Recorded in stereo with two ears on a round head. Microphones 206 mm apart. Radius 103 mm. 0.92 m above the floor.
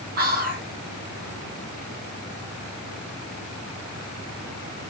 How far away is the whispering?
About 1.0 m.